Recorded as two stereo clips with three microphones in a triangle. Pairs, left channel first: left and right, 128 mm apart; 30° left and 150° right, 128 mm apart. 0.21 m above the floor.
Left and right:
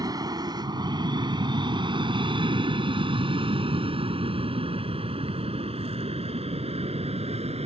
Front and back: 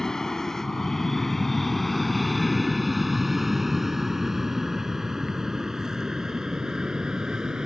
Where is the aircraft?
55° right; by 7.7 s 65° right.